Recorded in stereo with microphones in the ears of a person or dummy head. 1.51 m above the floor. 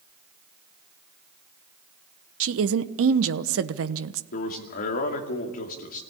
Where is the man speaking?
55° left (ahead or behind), 2.5 m.